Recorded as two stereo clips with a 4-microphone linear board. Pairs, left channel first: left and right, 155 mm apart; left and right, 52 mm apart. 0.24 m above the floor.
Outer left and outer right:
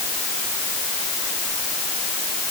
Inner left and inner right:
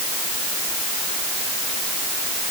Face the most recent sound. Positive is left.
No sound to turn to.